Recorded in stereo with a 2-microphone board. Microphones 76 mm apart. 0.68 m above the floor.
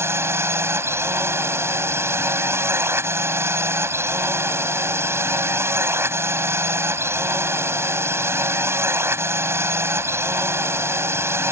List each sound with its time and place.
0.0 s a drone: 35° right (ahead or behind)